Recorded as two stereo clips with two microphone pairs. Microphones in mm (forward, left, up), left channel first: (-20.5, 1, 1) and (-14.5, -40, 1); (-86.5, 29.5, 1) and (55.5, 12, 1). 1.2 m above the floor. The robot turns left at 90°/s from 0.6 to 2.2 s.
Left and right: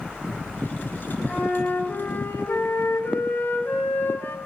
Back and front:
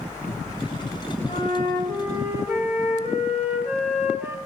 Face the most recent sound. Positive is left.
turn(degrees=65)